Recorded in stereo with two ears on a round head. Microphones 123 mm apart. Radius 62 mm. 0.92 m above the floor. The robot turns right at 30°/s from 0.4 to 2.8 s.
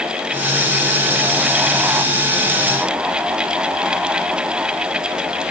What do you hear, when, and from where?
Only background noise.